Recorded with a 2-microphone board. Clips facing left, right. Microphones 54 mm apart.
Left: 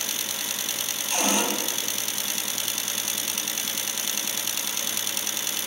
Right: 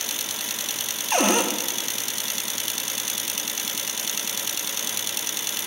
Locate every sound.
1.1 s a cupboard door: 50° right (ahead or behind), 0.7 m